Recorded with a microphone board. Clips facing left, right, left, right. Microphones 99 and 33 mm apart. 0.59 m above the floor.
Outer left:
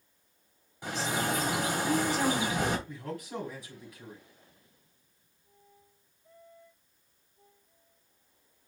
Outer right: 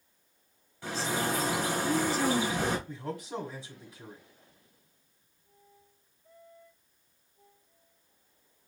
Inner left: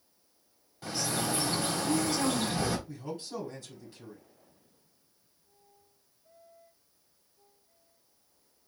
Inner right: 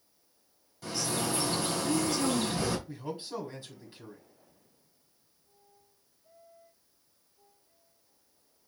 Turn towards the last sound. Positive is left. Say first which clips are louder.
# outer right 1 dB, inner right 1 dB
turn(degrees=-20)  # may be behind; listen again after turning